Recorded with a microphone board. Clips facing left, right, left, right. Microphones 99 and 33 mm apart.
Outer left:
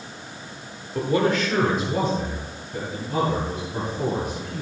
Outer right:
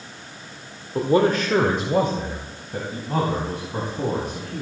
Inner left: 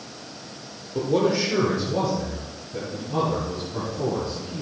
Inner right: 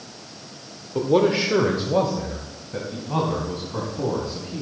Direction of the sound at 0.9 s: 20° right (ahead or behind).